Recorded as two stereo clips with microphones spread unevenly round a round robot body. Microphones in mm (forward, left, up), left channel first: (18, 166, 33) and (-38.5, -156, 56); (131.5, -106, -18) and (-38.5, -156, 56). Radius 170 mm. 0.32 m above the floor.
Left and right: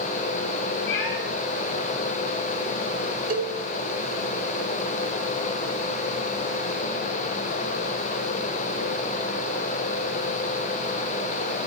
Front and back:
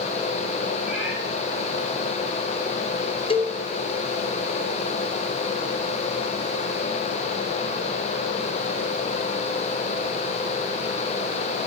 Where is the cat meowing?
110° left, 8 m.